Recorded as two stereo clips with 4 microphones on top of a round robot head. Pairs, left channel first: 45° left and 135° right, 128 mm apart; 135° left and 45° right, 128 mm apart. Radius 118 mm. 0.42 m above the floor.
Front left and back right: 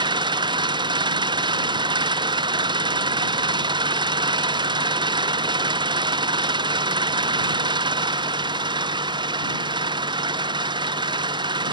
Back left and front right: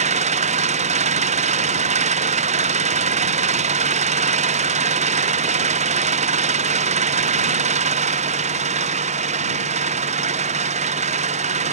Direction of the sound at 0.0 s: 80° right.